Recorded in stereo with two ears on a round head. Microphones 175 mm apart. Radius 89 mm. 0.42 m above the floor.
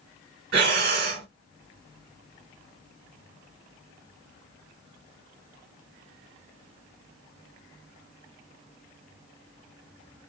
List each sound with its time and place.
0.5 s breathing: 50° right (ahead or behind), 1.6 m